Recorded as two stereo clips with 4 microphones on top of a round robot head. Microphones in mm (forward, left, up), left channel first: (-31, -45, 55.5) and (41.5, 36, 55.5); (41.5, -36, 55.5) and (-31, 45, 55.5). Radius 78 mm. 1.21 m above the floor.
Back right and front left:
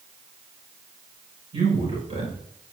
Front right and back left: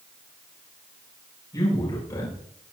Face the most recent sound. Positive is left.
turn(degrees=10)